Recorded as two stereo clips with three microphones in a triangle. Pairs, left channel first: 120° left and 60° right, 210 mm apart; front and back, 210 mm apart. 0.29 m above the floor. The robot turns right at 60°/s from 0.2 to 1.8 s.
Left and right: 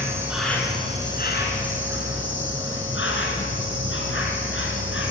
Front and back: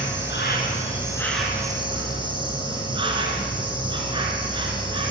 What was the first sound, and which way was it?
An insect, 20° left.